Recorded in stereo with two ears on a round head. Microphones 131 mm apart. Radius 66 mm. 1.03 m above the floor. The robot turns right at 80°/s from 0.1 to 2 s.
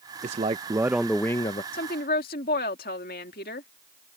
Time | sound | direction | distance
0.2 | a man speaking | 65° right | ?
1.7 | a woman speaking | 70° left (ahead or behind) | ?